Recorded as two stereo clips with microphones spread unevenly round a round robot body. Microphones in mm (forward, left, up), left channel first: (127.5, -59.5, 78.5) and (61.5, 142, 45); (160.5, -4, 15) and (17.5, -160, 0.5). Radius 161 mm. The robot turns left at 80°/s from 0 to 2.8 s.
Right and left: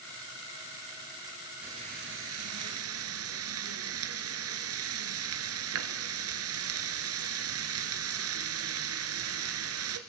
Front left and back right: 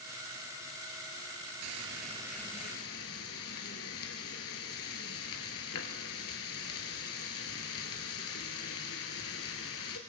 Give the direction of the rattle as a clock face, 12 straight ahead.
I don't hear a rattle.